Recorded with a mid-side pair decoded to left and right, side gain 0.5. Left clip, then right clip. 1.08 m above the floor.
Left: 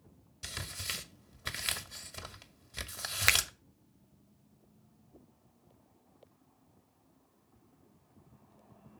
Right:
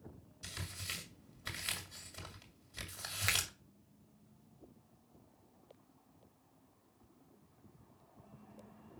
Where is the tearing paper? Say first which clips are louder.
Left 5 dB; 45° left, 1.7 m.